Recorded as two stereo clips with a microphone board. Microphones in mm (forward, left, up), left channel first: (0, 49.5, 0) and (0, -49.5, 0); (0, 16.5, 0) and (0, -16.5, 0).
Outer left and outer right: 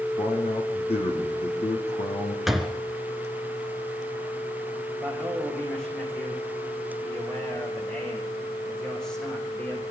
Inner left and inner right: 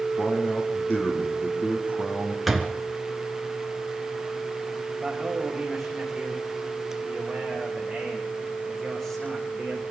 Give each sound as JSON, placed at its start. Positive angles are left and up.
{"t": 0.2, "sound": "a man speaking", "side_deg": 75, "distance_m": 6.0}
{"t": 2.5, "sound": "a door slam", "side_deg": 0, "distance_m": 1.5}
{"t": 4.9, "sound": "a man speaking", "side_deg": 10, "distance_m": 8.5}